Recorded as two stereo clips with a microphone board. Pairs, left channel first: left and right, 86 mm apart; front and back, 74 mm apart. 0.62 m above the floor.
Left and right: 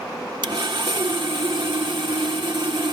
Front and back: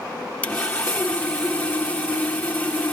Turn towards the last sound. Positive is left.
turn(degrees=-70)